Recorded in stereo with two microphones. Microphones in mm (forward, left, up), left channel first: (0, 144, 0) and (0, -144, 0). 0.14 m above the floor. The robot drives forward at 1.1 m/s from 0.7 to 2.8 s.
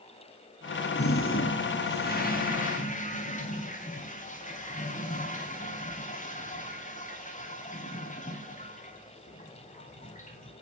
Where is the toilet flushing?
50° left (ahead or behind), 2 m; by 10.5 s 25° left (ahead or behind), 3.5 m.